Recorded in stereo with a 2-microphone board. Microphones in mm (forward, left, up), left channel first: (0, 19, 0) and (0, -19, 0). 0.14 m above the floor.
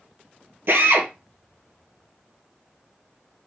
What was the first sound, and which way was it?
A drill, 70° right (ahead or behind).